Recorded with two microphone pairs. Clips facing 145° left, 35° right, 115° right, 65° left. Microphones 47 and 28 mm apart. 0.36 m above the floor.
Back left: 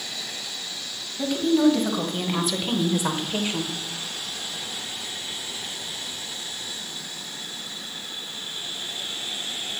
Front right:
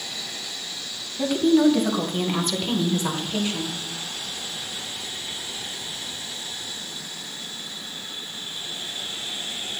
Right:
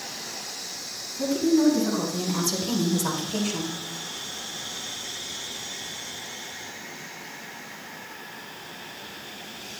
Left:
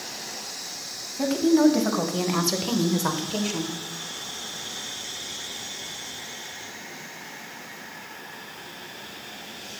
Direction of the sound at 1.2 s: 40° left.